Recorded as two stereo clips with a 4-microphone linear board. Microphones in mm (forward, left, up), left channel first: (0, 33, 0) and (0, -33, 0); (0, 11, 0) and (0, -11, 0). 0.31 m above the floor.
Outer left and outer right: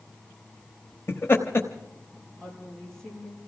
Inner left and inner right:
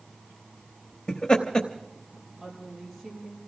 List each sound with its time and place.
1.1 s laughter: 40° left (ahead or behind), 1.1 m
2.4 s a woman speaking: 10° left (ahead or behind), 7 m